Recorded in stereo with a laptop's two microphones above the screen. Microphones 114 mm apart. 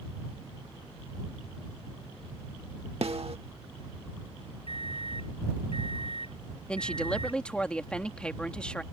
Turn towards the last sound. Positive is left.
turn(degrees=10)  # may be behind; listen again after turning